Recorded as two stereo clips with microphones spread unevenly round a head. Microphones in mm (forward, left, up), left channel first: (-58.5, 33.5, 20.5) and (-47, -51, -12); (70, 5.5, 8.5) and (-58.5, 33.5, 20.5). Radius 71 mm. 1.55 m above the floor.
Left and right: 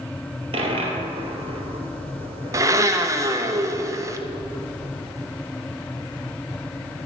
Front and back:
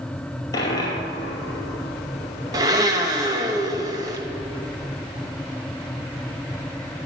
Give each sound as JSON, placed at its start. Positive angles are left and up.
{"t": 0.5, "sound": "a dropped coin", "azimuth_deg": -75, "distance_m": 1.9}
{"t": 2.5, "sound": "a blender", "azimuth_deg": -145, "distance_m": 0.9}